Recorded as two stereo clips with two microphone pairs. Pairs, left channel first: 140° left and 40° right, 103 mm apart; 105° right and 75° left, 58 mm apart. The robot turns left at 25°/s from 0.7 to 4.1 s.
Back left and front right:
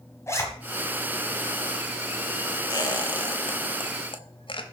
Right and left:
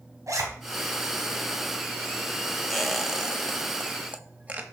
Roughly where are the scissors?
I don't hear scissors.